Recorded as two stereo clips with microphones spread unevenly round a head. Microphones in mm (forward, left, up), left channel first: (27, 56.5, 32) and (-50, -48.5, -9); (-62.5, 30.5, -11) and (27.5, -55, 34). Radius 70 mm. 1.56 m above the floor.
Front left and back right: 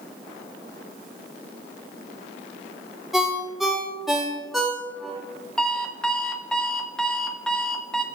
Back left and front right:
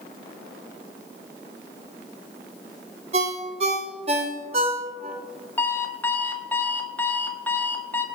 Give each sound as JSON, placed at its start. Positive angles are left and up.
{"t": 3.1, "sound": "a ringtone", "azimuth_deg": -25, "distance_m": 1.7}
{"t": 5.6, "sound": "an alarm clock", "azimuth_deg": 30, "distance_m": 0.9}